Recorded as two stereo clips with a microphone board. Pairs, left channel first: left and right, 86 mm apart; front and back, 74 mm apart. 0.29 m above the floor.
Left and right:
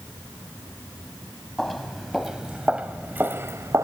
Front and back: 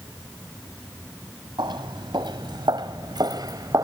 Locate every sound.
1.6 s footsteps: 170° left, 1.8 m; by 3.9 s 140° right, 1.3 m